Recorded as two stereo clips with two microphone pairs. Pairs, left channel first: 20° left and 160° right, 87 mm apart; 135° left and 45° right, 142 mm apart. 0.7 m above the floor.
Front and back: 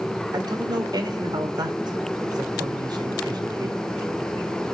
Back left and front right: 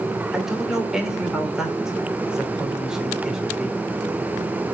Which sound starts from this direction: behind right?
A man speaking, at 0.3 s.